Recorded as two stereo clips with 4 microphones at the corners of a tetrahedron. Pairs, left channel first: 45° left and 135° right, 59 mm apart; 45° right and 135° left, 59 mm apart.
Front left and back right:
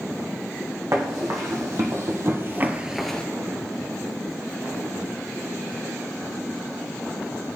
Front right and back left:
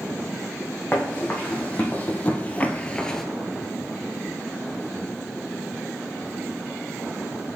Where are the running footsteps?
110° right, 1.9 m; by 3.2 s 25° left, 0.5 m.